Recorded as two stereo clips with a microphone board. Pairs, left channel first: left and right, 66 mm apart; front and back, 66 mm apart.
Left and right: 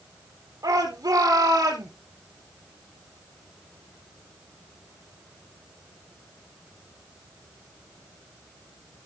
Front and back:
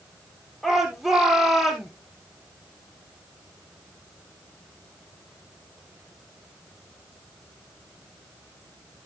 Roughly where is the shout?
Right.